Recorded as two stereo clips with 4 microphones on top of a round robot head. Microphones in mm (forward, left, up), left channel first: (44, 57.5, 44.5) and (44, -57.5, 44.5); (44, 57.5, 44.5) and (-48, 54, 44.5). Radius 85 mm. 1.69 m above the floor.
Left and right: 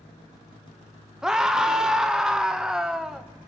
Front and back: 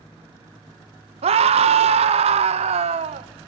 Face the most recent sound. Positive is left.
turn(degrees=-175)